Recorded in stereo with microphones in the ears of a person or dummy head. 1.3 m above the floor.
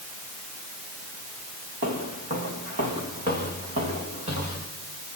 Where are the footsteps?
50° right (ahead or behind), 7.5 m; by 4.6 s 40° right (ahead or behind), 10.5 m.